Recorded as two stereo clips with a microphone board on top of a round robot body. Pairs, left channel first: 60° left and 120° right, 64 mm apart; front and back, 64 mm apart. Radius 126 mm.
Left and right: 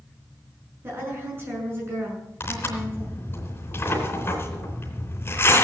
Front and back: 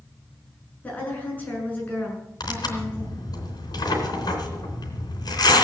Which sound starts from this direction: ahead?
Tearing paper, at 2.4 s.